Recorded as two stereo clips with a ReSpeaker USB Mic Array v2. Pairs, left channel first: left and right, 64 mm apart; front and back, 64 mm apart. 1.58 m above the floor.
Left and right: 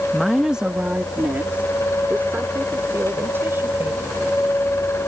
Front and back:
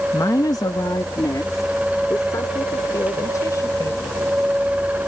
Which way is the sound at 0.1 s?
5° left.